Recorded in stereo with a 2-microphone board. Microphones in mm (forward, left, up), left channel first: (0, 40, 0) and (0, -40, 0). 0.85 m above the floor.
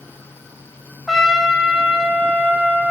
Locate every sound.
1.1 s a trumpet: 5° right (ahead or behind), 2 m